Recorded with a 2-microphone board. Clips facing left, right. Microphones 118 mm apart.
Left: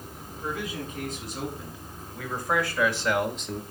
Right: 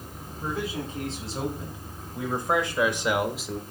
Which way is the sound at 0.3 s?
30° right (ahead or behind).